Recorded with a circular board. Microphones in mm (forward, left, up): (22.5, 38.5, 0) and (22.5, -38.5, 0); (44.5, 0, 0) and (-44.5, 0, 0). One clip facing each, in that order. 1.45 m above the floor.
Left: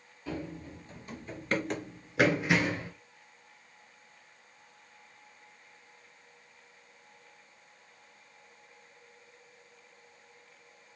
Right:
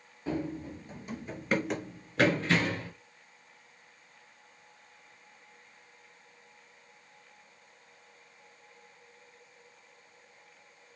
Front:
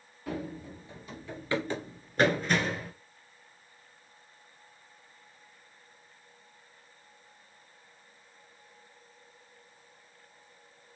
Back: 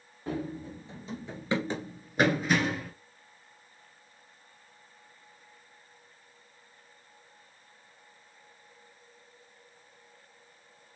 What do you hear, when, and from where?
0.3 s running footsteps: 135° right, 1.9 m; by 2.9 s 90° left, 1.5 m